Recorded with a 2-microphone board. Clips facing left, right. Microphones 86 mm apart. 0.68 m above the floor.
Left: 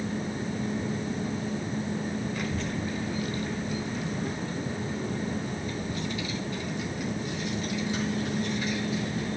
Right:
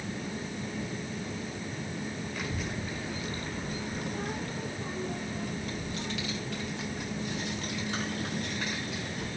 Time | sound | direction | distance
2.4 | a child speaking | centre (ahead or behind) | 1.4 m